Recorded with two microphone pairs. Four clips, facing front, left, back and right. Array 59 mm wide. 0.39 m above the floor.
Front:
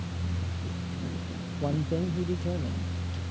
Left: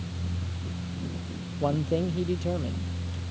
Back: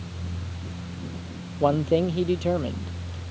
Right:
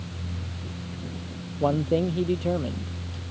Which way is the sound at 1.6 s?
165° right.